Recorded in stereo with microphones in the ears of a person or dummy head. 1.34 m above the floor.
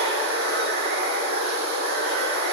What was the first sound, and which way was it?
Running water, 60° right (ahead or behind).